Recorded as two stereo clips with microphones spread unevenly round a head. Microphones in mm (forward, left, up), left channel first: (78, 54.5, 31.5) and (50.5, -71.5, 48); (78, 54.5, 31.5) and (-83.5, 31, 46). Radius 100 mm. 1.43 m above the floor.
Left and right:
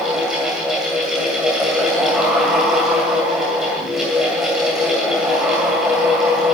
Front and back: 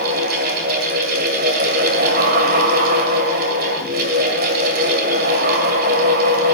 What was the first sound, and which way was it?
A fan, 175° left.